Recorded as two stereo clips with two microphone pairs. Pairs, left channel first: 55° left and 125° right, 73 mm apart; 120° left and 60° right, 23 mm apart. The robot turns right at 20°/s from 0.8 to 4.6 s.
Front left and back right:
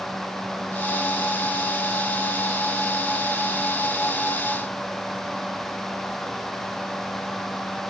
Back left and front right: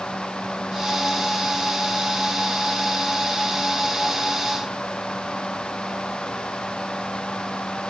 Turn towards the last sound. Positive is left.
No sound to turn to.